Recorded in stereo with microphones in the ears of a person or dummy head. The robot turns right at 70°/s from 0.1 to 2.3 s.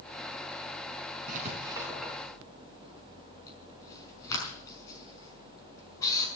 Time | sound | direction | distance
1.3 | writing | 50° right (ahead or behind) | 5 m